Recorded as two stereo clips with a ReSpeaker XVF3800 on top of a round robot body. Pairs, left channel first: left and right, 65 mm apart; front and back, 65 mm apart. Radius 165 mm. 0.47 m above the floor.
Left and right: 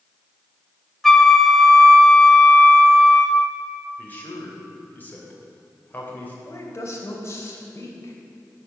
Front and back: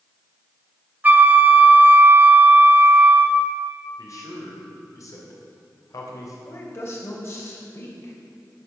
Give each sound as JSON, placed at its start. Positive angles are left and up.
{"t": 1.0, "sound": "a flute", "azimuth_deg": 170, "distance_m": 1.2}
{"t": 4.0, "sound": "a man speaking", "azimuth_deg": 30, "distance_m": 3.5}
{"t": 6.5, "sound": "a woman speaking", "azimuth_deg": 45, "distance_m": 3.0}